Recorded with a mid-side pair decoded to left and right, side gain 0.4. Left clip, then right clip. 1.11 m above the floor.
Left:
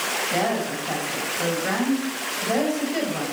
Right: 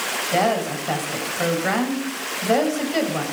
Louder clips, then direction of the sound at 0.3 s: Right 3 dB; 40° right.